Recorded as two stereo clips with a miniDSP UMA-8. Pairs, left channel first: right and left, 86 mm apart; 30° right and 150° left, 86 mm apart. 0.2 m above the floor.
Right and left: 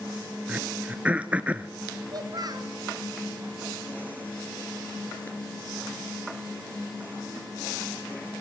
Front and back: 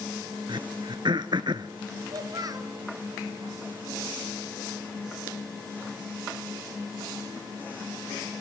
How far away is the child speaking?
About 2.5 m.